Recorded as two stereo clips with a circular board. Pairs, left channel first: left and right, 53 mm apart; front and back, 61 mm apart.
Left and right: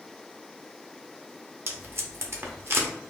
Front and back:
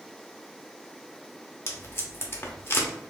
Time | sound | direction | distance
1.7 | tape being pulled | 50° right | 0.6 m